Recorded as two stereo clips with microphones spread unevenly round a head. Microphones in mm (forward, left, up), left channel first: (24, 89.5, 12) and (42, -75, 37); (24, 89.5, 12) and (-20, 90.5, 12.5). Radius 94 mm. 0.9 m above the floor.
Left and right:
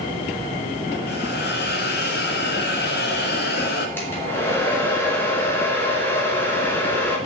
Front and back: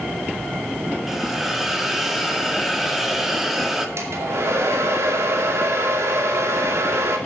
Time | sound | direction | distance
1.1 | a hiss | 95° left | 2 m
4.0 | a hair dryer | 175° left | 2.5 m